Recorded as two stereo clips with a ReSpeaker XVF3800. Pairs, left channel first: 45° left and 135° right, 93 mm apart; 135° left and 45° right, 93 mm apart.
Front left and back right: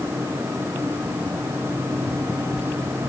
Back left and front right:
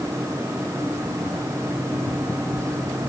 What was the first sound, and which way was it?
Only background noise.